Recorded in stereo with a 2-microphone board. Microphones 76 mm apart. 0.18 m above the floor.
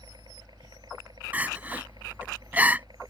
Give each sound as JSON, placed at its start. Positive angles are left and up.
{"t": 0.0, "sound": "a helicopter", "side_deg": -65}
{"t": 1.3, "sound": "crying", "side_deg": -20}